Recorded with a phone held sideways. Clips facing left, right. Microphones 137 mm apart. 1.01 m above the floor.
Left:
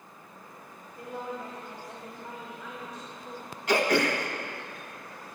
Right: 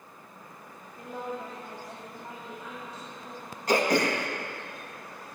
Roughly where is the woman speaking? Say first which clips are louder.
Right 1 dB; right.